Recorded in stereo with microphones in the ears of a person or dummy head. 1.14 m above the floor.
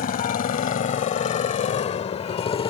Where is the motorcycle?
45° left (ahead or behind); by 2.7 s 25° left (ahead or behind).